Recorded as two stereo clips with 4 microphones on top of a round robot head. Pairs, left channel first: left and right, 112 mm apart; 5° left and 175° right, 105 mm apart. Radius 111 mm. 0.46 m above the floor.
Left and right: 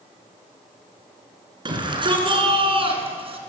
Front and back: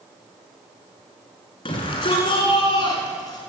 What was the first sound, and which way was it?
A shout, 40° right.